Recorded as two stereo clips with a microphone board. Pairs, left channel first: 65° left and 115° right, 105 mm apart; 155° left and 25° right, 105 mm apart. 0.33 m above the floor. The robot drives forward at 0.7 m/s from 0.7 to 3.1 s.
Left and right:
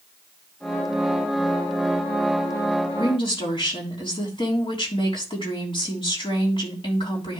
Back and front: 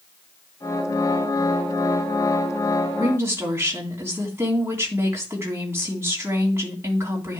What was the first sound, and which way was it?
A woman speaking, 40° left.